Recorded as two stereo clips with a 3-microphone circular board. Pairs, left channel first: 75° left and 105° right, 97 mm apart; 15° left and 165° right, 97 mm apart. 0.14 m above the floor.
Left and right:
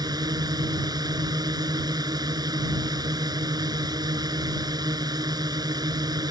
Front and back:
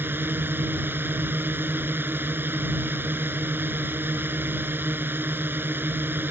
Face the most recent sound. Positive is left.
turn(degrees=-110)